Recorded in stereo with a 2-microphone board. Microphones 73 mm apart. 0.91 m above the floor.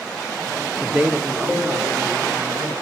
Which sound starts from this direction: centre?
A woman speaking, at 0.8 s.